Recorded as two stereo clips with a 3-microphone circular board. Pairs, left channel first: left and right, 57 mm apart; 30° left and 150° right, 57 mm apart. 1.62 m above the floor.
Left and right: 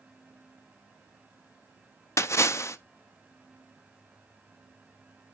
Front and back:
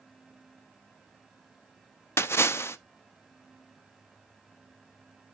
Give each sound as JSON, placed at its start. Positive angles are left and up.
{"t": 2.2, "sound": "a splash", "azimuth_deg": 65, "distance_m": 0.6}